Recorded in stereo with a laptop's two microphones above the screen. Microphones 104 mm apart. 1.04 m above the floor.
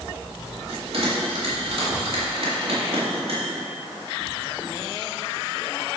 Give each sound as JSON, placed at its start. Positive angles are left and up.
{"t": 0.7, "sound": "a bell", "side_deg": -70, "distance_m": 2.5}